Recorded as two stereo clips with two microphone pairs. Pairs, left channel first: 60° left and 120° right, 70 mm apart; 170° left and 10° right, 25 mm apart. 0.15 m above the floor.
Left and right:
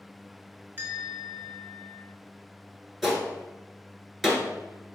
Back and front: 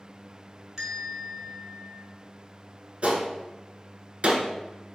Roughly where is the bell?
Right.